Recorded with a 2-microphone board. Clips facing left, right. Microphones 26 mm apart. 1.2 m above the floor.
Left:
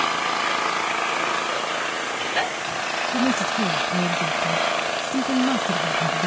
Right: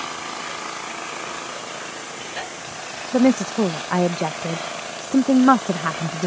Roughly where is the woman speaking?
Right.